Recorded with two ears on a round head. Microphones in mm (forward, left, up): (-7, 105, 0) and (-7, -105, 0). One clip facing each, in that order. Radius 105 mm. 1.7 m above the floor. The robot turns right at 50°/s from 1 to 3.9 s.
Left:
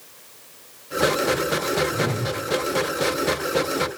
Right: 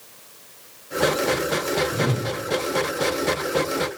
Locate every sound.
1.9 s a whoosh: 10° right (ahead or behind), 1.8 m; by 2.3 s 30° right (ahead or behind), 1.8 m